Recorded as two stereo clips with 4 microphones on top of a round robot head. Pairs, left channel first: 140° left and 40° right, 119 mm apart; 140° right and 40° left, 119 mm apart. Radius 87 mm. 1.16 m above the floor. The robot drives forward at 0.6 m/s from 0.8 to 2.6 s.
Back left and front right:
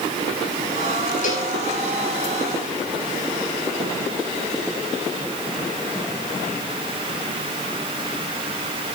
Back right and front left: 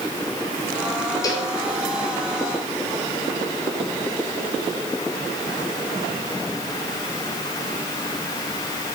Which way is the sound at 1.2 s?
160° left.